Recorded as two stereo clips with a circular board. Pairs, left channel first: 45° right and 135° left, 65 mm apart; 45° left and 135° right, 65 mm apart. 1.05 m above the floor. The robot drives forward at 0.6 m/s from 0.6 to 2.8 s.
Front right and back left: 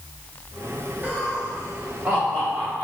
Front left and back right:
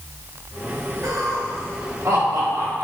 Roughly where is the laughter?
Behind.